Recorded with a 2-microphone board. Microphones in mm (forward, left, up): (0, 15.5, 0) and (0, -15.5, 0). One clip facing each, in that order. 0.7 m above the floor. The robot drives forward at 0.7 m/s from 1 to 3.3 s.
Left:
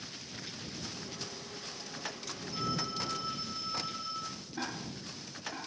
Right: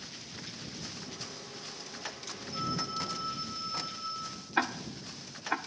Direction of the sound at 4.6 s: 80° right.